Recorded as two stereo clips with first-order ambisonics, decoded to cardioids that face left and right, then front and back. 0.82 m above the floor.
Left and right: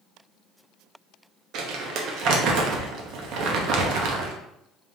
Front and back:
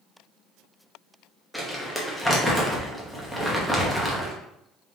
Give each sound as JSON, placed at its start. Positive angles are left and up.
{"t": 1.5, "sound": "crumpling", "azimuth_deg": -90, "distance_m": 0.7}